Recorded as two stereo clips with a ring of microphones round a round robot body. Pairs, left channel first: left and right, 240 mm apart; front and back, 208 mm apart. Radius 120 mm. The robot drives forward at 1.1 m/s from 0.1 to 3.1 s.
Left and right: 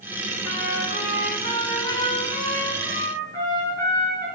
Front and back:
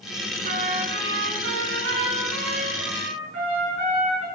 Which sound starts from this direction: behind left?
A trumpet, at 0.4 s.